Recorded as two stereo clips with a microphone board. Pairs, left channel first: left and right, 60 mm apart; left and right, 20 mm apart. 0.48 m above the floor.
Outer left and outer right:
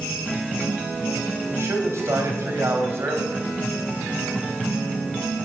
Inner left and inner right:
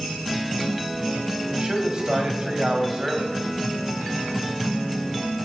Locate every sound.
1.5 s a man speaking: 45° right (ahead or behind), 2.5 m